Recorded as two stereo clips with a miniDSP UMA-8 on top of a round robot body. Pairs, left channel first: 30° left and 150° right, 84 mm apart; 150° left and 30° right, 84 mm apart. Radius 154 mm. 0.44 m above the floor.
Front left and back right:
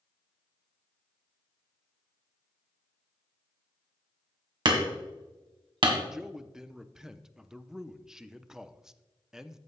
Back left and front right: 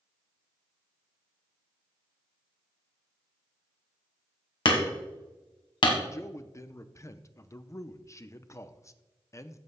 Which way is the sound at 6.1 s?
130° left.